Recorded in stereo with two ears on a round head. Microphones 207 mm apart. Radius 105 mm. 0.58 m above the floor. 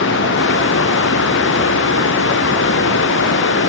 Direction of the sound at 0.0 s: 55° left (ahead or behind).